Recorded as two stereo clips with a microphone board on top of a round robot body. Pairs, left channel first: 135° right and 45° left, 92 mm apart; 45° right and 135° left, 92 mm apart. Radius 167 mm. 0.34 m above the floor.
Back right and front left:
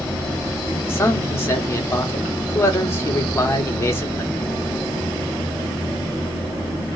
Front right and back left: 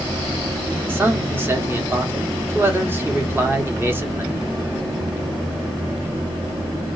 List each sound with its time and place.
0.9 s a man speaking: 175° right, 1.3 m